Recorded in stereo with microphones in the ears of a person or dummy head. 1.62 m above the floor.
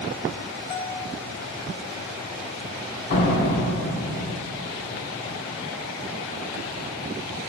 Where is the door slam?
30° left (ahead or behind), 0.7 m.